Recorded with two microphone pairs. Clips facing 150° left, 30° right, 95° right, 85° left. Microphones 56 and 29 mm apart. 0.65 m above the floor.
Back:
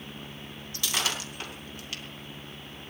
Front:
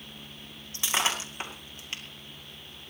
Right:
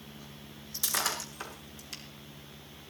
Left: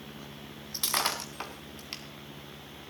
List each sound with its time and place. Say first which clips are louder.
0.7 s breaking glass: front 2 dB, left 2 dB; 40° left, 3.5 m